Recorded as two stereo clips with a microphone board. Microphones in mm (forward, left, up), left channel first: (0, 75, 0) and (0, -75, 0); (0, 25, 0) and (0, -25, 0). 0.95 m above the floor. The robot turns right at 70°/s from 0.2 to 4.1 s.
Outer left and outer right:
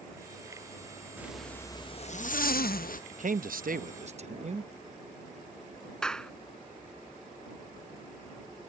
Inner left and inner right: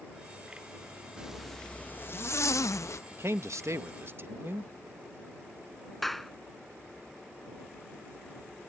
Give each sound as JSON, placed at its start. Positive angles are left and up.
{"t": 1.2, "sound": "a zipper", "azimuth_deg": -15}
{"t": 3.1, "sound": "a man speaking", "azimuth_deg": -120}
{"t": 6.0, "sound": "a clap", "side_deg": 5}